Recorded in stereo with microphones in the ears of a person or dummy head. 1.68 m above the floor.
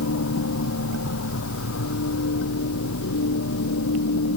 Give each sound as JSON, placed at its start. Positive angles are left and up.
{"t": 0.0, "sound": "a machine running", "side_deg": 80}